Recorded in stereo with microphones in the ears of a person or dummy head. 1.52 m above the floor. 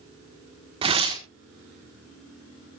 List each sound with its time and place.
0.8 s tearing paper: 25° right (ahead or behind), 1.4 m